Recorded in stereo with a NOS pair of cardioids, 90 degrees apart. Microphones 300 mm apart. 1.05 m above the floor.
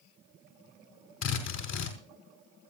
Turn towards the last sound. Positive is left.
turn(degrees=70)